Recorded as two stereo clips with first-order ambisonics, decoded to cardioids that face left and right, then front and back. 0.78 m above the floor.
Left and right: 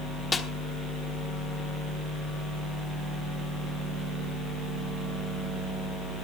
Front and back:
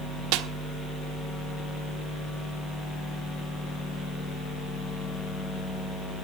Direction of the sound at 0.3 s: 170° left.